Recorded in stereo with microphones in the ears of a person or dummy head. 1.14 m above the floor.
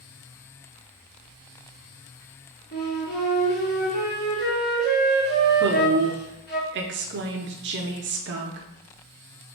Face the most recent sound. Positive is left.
turn(degrees=-50)  # may be behind; listen again after turning